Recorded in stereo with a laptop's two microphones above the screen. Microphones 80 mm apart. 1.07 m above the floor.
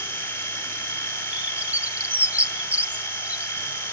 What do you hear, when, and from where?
0.0 s a machine running: 30° left (ahead or behind), 4 m
1.3 s a bird: 20° right (ahead or behind), 1.6 m